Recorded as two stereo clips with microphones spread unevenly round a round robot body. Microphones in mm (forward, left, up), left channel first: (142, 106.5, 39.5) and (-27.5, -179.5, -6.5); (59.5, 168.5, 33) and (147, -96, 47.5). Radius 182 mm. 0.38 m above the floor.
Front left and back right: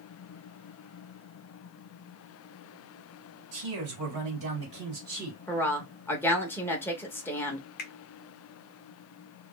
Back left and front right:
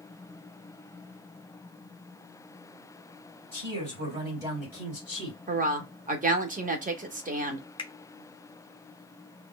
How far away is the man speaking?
About 2 m.